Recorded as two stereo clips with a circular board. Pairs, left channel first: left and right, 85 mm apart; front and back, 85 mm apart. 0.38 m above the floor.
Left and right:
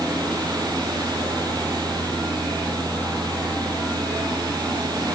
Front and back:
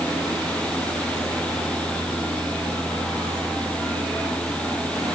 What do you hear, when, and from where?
Only background noise.